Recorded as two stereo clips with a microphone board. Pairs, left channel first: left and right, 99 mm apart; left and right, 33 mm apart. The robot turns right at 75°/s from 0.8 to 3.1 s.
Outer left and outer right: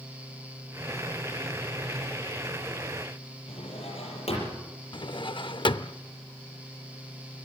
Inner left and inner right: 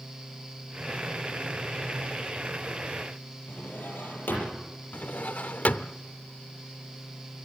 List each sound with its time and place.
3.5 s a drawer: 80° left, 6.5 m
4.9 s a drawer: 55° left (ahead or behind), 0.6 m